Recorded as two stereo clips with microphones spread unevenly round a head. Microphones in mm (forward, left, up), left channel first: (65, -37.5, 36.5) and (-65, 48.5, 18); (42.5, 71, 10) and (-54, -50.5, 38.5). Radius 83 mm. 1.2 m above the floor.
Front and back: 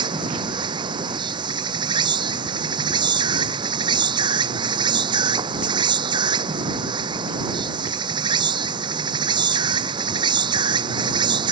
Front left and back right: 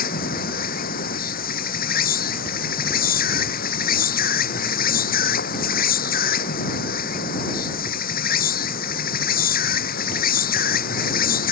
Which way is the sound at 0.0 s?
85° left.